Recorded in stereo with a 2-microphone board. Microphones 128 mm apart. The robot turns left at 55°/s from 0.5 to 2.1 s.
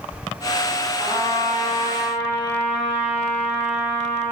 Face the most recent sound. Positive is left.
turn(degrees=80)